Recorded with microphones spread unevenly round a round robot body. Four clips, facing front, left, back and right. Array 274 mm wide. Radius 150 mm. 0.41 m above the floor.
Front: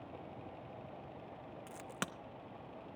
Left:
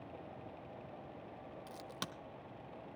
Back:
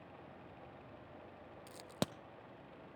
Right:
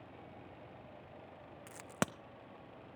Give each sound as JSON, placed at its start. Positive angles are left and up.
{"t": 1.7, "sound": "a crack", "azimuth_deg": -125, "distance_m": 0.6}